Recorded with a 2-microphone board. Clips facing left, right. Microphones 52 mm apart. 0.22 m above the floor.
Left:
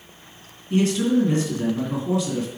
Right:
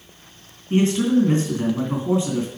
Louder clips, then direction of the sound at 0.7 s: Right 2 dB; 30° right (ahead or behind).